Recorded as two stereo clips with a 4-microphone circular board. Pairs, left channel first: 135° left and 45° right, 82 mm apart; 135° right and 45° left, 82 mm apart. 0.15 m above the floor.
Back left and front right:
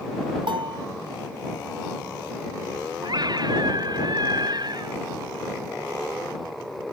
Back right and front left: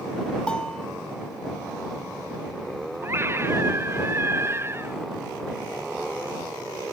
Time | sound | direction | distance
0.5 | a bell | 55° right | ?
3.0 | a scream | 15° right | ?